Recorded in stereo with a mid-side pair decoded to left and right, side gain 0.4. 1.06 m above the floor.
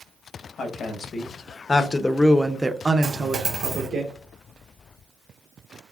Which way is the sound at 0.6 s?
60° left.